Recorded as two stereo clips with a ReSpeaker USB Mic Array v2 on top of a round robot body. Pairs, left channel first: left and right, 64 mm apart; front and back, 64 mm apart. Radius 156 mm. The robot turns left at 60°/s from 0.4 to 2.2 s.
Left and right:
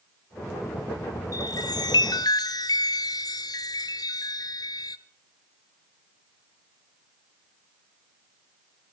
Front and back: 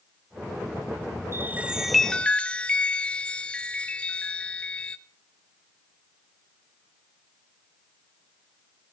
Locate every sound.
1.3 s a chime: 125° left, 0.9 m; by 5.0 s 70° left, 0.9 m